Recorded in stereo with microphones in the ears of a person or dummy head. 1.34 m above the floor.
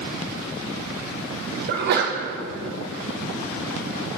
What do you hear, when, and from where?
1.7 s a sneeze: 60° right (ahead or behind), 0.8 m